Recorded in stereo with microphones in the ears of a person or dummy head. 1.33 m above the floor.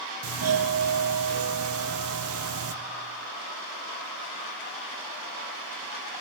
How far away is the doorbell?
About 0.7 m.